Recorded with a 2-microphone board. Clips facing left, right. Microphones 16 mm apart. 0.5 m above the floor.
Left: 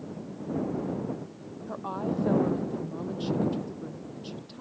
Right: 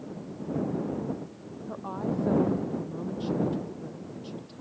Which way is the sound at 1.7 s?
15° left (ahead or behind).